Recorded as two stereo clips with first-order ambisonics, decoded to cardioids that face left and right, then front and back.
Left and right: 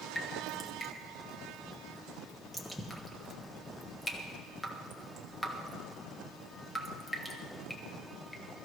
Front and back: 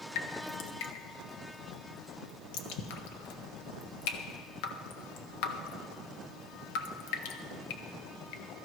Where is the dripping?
5° left, 1.3 m.